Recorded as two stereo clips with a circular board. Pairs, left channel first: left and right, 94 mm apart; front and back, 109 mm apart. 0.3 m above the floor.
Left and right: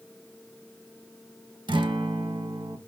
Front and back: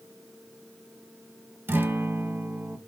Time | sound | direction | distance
1.7 | a guitar | 110° right | 0.8 m